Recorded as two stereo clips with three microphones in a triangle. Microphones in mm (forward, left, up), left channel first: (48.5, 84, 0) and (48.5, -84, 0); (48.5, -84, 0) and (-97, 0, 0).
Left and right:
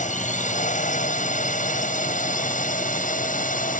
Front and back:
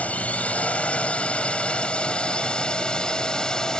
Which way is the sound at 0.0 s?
50° left.